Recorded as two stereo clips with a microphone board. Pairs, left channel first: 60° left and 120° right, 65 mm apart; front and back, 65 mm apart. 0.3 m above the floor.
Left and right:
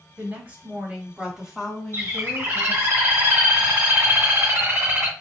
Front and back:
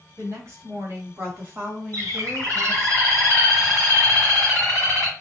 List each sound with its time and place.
0.2 s a woman speaking: 165° right, 2.0 m; by 2.9 s 115° left, 1.6 m
1.9 s a bird: 155° right, 2.5 m